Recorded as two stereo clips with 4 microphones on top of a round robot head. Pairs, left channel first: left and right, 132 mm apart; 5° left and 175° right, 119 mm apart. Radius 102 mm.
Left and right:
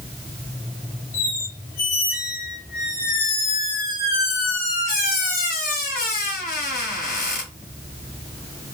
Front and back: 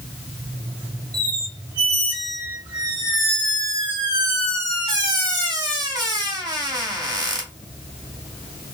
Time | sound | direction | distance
1.1 | a squeak | 125° left | 1.5 m